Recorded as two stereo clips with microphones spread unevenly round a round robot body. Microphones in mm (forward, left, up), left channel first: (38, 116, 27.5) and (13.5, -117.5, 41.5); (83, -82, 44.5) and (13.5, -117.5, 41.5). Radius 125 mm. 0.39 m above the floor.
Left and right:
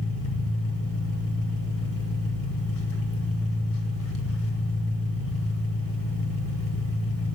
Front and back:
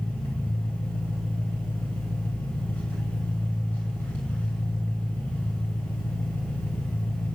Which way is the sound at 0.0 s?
100° left.